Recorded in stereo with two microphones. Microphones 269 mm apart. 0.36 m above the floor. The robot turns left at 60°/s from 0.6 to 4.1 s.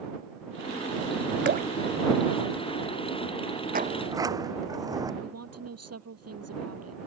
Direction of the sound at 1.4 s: 45° right (ahead or behind).